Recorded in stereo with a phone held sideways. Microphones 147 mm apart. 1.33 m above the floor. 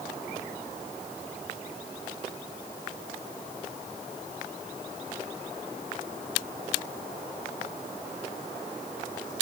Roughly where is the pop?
No pop in this recording.